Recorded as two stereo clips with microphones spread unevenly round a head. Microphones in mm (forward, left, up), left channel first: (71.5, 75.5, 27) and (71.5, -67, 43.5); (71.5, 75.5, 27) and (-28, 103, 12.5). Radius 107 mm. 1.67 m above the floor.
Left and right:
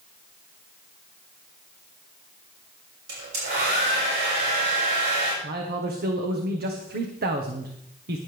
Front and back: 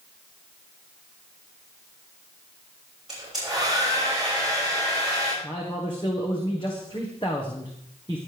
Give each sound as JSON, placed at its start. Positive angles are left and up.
{"t": 3.1, "sound": "a hair dryer", "azimuth_deg": -105, "distance_m": 6.0}
{"t": 5.4, "sound": "a man speaking", "azimuth_deg": -85, "distance_m": 1.4}